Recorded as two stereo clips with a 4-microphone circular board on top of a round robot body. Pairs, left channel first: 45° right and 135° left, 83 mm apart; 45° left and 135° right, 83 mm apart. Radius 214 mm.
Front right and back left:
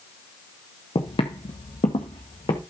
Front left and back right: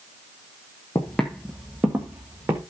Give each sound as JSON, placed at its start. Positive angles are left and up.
{"t": 0.9, "sound": "footsteps", "azimuth_deg": -15, "distance_m": 0.7}